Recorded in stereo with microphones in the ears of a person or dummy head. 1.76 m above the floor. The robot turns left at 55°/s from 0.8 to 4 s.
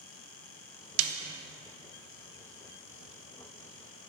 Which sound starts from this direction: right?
A snare drum, at 1.0 s.